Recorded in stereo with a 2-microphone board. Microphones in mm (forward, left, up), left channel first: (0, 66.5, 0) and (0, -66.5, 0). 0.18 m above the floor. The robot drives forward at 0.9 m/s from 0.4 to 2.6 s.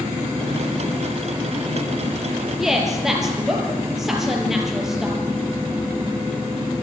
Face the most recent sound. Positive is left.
turn(degrees=-5)  # may be behind; listen again after turning